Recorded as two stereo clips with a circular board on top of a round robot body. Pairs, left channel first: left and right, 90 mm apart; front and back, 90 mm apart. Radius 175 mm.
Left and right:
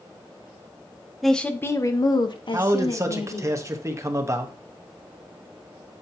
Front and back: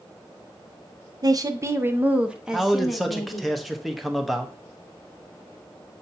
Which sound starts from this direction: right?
A man speaking, at 2.5 s.